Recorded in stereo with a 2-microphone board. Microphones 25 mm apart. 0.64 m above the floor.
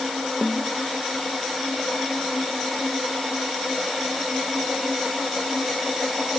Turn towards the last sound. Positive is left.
turn(degrees=-5)  # may be behind; listen again after turning